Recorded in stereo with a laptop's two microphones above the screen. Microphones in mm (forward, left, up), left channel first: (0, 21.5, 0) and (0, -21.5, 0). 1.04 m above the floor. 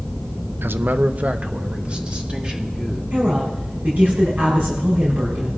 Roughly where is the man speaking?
Right.